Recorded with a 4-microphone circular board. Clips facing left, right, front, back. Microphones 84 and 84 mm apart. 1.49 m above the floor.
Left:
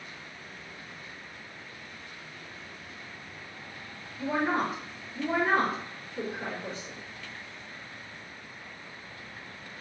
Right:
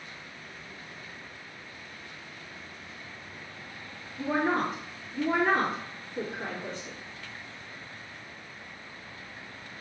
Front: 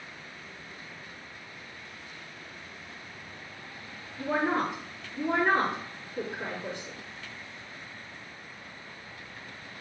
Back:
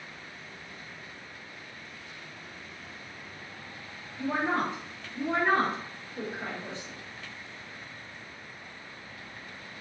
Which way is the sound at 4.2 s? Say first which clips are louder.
Right 1 dB, front 1 dB; 80° right.